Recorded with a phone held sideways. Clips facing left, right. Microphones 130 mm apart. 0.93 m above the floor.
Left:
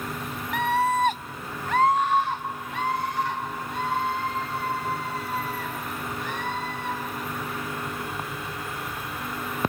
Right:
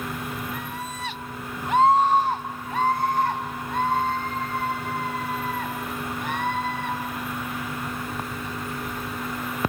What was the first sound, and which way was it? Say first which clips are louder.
A scream: left 11 dB; 80° left.